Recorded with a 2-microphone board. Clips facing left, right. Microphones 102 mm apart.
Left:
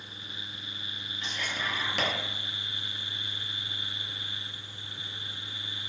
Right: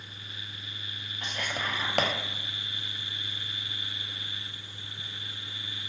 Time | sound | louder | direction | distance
1.2 | whispering | right 1 dB | 55° right (ahead or behind) | 0.7 m